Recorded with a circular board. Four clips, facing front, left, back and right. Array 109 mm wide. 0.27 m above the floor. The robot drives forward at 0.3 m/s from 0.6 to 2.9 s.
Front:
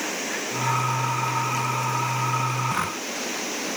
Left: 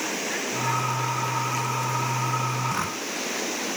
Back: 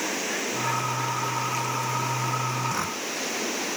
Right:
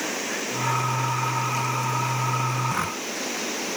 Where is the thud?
I don't hear a thud.